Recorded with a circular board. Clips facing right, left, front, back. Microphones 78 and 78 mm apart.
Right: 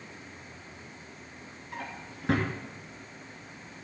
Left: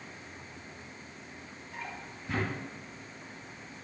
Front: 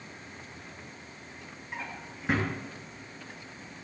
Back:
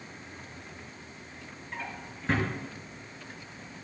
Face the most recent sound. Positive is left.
turn(degrees=-85)